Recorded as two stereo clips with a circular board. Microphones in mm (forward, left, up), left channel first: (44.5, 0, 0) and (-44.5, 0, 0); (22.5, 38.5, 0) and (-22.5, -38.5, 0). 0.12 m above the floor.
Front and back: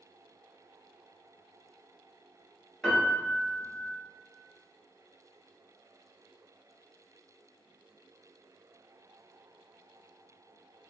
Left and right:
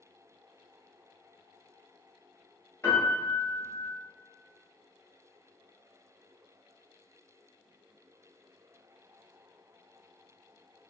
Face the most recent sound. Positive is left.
turn(degrees=85)